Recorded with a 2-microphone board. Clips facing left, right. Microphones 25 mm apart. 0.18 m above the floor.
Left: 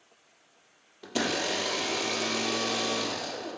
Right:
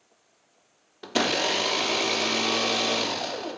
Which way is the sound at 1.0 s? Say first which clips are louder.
Right 5 dB; 30° right (ahead or behind).